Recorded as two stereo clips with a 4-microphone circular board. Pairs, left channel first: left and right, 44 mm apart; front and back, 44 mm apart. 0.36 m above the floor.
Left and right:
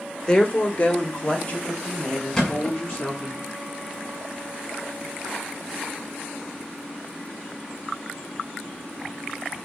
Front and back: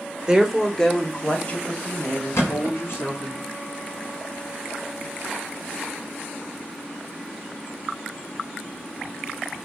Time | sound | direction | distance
0.3 | a woman speaking | 130° left | 0.9 m
2.3 | a thud | 10° left | 1.6 m